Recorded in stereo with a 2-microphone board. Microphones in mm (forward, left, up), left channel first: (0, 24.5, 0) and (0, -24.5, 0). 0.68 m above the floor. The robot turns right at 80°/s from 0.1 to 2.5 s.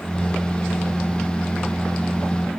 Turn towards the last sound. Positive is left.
No sound to turn to.